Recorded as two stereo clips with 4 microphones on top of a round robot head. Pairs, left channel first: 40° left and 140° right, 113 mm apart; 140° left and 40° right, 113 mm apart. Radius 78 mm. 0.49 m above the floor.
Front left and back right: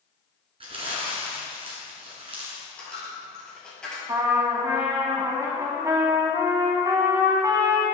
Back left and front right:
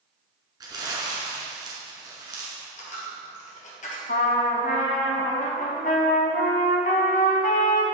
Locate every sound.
0.6 s crumpling: 100° right, 1.9 m
2.8 s a dropped coin: 125° left, 1.8 m
4.1 s a trumpet: 155° left, 0.9 m